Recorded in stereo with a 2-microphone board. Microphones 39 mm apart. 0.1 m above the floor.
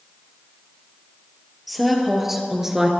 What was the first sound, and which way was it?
A woman speaking, centre (ahead or behind).